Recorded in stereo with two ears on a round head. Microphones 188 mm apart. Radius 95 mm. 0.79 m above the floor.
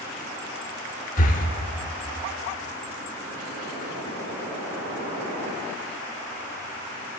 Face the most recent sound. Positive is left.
turn(degrees=40)  # may be behind; listen again after turning